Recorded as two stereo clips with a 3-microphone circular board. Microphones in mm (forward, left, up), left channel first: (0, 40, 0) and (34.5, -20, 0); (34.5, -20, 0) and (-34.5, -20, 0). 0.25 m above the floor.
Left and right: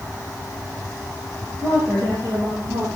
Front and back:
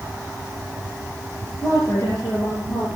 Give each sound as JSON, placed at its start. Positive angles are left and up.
{"t": 1.6, "sound": "a woman speaking", "azimuth_deg": -35, "distance_m": 5.5}